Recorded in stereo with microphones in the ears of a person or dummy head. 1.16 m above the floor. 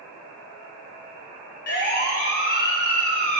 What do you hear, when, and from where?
1.7 s a siren: 60° left (ahead or behind), 2.5 m; by 3.4 s 45° left (ahead or behind), 3.5 m